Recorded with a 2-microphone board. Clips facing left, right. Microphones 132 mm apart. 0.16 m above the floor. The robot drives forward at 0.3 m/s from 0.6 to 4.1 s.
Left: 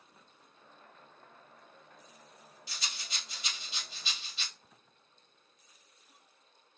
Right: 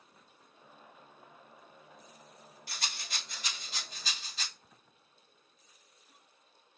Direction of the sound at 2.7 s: 55° right (ahead or behind).